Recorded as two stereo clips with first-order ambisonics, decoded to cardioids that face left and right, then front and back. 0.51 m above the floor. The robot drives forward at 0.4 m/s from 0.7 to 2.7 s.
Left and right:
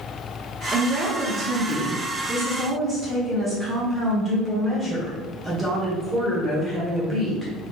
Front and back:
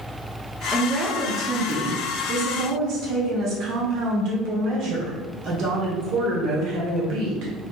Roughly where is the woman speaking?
Right.